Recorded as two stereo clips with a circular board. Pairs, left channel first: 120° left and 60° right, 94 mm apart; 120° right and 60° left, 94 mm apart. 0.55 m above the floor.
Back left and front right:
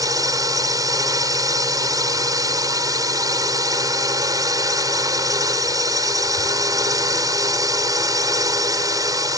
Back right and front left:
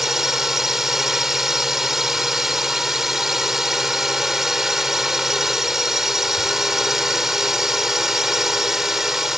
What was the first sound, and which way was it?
A drone, 25° right.